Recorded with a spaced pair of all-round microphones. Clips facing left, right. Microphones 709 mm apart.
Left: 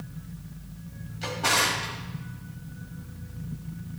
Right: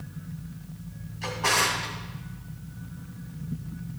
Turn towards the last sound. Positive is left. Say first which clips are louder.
# even
turn(degrees=60)  # may be behind; listen again after turning